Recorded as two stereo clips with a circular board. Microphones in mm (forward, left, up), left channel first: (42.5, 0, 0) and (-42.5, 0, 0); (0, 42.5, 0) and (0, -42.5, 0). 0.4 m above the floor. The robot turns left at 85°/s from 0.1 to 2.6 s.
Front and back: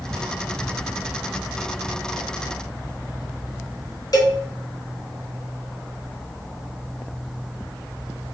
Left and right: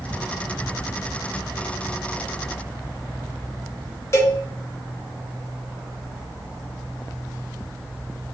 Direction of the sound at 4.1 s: 35° left.